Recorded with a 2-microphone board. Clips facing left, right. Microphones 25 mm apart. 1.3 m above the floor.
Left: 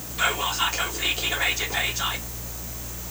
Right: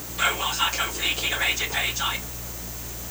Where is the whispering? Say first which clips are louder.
Even; centre (ahead or behind), 0.9 m.